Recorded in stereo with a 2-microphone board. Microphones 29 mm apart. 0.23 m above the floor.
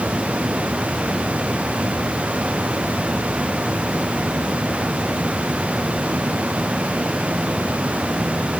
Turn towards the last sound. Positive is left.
No sound to turn to.